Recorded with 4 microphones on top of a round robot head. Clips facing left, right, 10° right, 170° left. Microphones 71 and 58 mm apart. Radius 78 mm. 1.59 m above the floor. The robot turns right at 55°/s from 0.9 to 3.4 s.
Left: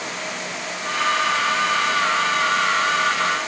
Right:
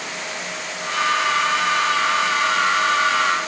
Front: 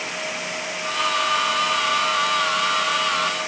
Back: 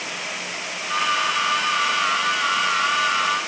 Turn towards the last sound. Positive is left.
No sound to turn to.